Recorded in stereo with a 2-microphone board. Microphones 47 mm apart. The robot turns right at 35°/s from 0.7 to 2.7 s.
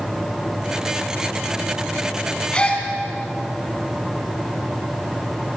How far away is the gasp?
About 4.5 m.